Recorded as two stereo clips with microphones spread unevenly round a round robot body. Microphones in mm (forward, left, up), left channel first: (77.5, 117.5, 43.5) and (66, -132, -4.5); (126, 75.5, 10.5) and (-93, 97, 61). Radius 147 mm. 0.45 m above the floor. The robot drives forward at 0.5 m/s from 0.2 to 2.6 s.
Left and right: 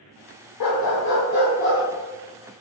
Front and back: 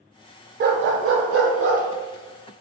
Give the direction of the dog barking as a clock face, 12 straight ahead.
8 o'clock.